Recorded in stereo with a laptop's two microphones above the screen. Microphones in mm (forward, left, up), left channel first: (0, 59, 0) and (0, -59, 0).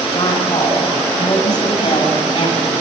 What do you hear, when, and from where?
0.1 s a woman speaking: 30° left (ahead or behind), 5.5 m; by 2.7 s 40° left (ahead or behind), 8.5 m